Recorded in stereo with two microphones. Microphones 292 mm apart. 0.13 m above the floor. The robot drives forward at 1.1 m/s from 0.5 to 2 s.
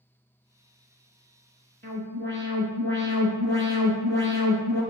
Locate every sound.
1.8 s an alarm: 35° right (ahead or behind), 1.0 m; by 4.8 s 40° right (ahead or behind), 1.0 m